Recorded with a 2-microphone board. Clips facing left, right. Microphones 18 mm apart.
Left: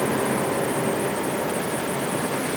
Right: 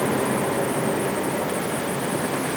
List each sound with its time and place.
Only background noise.